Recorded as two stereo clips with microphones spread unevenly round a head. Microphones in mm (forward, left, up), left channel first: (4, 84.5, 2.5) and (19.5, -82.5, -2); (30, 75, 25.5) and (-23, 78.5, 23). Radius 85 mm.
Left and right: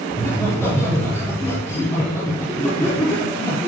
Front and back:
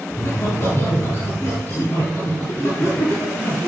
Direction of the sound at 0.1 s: 20° left.